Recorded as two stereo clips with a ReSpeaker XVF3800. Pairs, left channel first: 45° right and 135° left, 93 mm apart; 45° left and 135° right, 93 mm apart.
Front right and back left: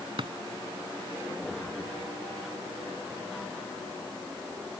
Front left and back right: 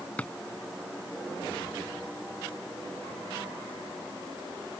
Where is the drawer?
120° left.